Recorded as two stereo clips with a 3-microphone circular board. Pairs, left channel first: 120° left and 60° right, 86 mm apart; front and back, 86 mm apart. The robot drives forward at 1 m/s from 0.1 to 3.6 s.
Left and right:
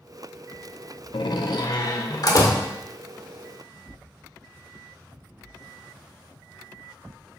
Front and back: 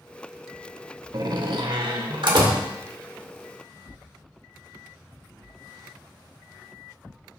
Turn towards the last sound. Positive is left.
turn(degrees=170)